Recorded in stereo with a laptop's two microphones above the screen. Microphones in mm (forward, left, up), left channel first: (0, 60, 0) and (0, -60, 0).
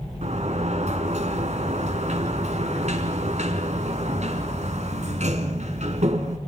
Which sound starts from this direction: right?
A sliding door, at 0.2 s.